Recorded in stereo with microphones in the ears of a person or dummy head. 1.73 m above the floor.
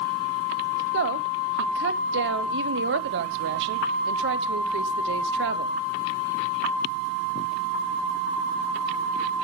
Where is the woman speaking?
60° right (ahead or behind), 1.1 m.